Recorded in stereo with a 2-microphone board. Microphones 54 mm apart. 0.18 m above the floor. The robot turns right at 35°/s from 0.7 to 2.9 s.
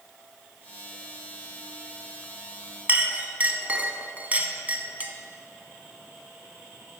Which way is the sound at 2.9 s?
30° right (ahead or behind).